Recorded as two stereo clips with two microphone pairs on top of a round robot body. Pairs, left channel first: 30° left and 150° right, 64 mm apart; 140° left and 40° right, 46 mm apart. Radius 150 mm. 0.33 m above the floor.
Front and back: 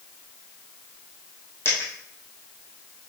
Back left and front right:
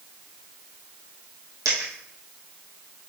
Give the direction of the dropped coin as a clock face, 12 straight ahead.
1 o'clock.